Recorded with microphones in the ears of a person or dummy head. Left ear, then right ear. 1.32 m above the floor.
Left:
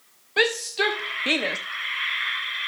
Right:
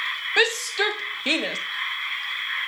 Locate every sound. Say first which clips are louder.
0.4 s a shout: even; 25° right (ahead or behind), 1.3 m; by 1.6 s 5° left (ahead or behind), 1.0 m